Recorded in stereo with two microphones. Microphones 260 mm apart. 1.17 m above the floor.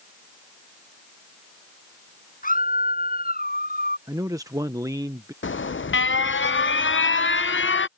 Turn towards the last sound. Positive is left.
turn(degrees=45)  # may be behind; listen again after turning